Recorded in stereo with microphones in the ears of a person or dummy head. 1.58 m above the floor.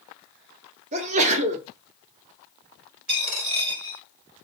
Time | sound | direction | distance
0.9 | a sneeze | 40° right (ahead or behind) | 0.7 m
3.1 | a dropped coin | 50° right (ahead or behind) | 2.5 m